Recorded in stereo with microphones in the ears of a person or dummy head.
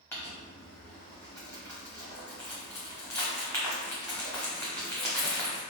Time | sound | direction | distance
0.1 | crumpling | 5° left (ahead or behind) | 0.7 m